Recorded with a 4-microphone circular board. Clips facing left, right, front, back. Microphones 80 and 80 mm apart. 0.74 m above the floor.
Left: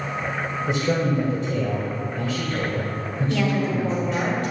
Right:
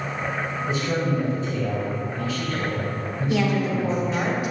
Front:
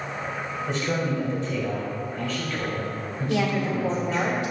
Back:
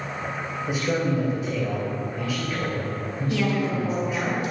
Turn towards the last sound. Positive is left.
turn(degrees=-15)